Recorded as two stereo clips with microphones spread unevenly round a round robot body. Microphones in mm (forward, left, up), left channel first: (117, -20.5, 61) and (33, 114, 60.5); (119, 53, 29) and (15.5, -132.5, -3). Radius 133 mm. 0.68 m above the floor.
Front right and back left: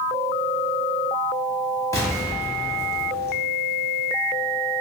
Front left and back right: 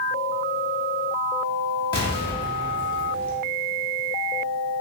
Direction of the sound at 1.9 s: 5° left.